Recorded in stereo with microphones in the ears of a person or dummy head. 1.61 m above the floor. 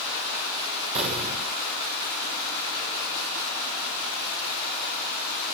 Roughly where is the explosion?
Right.